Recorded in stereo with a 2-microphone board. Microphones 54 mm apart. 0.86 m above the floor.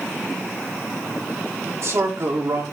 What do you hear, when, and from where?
1.6 s a man speaking: 65° right (ahead or behind), 2 m